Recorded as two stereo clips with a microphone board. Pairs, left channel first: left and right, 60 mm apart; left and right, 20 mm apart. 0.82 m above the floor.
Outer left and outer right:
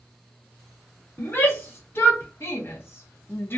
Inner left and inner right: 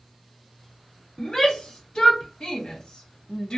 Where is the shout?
45° left (ahead or behind), 1.5 m; by 3.6 s 40° left (ahead or behind), 0.6 m.